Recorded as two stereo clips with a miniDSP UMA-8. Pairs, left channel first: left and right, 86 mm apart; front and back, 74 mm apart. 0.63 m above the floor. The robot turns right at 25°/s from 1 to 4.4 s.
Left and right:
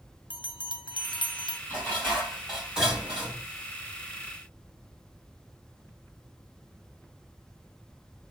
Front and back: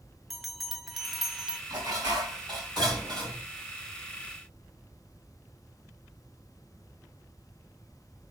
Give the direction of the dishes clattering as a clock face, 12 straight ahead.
7 o'clock.